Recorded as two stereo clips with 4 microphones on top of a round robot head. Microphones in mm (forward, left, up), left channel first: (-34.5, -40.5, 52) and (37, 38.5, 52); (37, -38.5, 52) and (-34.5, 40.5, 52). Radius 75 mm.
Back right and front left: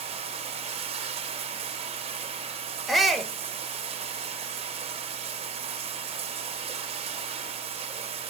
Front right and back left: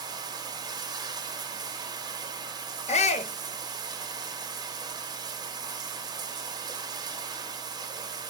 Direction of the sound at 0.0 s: 80° left.